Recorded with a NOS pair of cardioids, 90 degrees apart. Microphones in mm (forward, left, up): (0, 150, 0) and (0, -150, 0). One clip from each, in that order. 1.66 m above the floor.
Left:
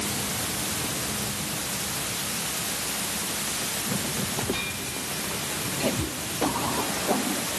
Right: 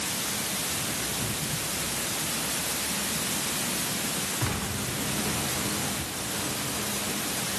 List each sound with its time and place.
Only background noise.